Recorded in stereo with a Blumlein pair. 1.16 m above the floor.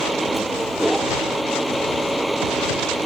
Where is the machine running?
5° right.